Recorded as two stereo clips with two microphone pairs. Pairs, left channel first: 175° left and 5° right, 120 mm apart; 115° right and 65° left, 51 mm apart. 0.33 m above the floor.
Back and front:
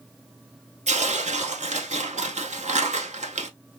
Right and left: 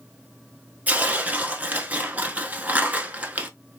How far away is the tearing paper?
About 0.8 m.